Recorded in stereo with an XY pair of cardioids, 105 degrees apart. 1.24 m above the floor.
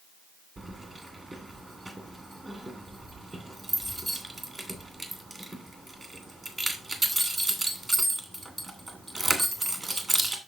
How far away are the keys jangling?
About 2.5 m.